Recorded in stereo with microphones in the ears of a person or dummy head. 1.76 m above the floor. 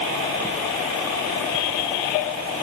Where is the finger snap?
No finger snap in this recording.